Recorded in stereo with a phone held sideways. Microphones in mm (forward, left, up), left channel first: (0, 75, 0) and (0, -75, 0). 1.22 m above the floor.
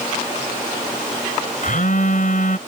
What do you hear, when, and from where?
1.6 s a phone buzzing: 65° left (ahead or behind)